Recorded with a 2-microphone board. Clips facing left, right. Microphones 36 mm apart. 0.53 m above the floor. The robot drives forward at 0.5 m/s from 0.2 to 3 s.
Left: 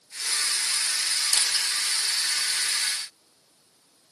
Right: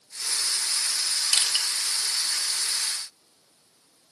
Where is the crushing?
60° right (ahead or behind), 1.2 m; by 1.7 s 65° right (ahead or behind), 1.2 m.